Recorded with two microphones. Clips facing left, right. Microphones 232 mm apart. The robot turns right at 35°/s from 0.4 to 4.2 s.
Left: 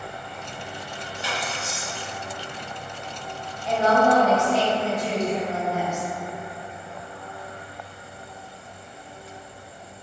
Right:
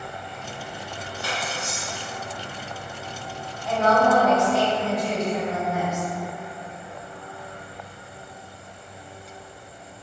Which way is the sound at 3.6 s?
25° left (ahead or behind).